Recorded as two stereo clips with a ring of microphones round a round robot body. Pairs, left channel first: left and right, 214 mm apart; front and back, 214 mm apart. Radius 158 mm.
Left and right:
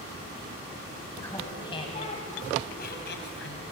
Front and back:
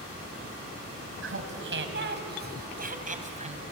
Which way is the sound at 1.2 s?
170° left.